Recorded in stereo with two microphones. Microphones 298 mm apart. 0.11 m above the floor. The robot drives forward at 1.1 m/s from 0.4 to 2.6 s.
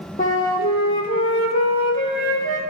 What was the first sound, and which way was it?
A flute, 25° left (ahead or behind).